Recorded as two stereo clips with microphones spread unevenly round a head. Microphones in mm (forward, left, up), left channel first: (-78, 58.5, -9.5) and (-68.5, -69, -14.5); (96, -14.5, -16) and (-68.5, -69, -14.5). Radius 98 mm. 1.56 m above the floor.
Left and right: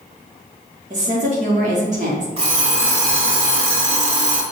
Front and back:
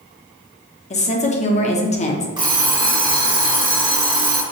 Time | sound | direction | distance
0.9 | a woman speaking | 35° right | 0.9 m
2.4 | an alarm clock | 105° right | 1.3 m